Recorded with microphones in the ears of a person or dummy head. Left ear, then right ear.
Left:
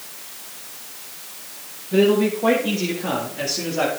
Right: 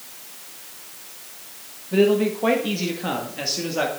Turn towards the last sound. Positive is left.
turn(degrees=-55)  # may be behind; listen again after turning